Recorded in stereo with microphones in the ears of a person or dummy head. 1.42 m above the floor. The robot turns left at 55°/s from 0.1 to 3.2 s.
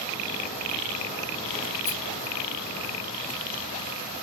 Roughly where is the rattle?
Left.